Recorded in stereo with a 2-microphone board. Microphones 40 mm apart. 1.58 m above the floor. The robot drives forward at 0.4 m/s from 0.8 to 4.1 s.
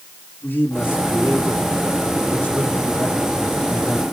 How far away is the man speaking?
About 2.5 m.